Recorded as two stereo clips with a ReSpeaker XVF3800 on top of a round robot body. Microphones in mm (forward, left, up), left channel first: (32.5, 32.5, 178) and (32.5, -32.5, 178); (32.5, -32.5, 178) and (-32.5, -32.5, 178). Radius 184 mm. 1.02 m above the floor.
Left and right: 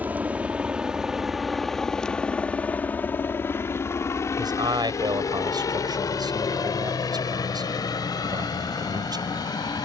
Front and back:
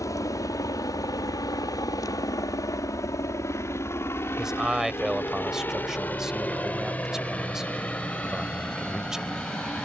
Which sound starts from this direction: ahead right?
A helicopter, at 0.0 s.